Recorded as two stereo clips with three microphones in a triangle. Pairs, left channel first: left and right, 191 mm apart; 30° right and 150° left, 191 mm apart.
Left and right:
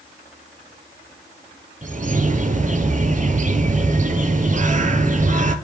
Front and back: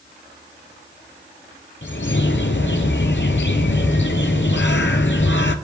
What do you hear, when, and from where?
1.8 s a bird: 40° right, 0.6 m